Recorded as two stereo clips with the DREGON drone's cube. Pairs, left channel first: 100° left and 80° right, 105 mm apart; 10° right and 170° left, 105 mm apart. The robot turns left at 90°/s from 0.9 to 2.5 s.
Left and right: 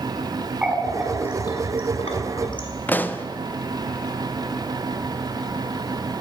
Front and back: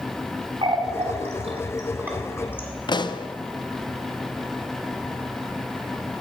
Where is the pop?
30° left, 0.5 m.